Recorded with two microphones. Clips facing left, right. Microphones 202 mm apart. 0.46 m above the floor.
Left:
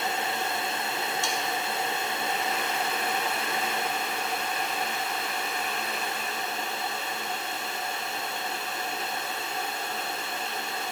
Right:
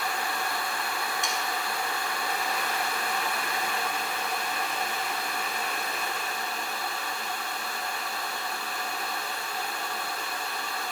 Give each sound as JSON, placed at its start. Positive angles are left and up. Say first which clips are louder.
{"t": 1.2, "sound": "sawing", "louder": "left 2 dB", "side_deg": -20, "distance_m": 1.4}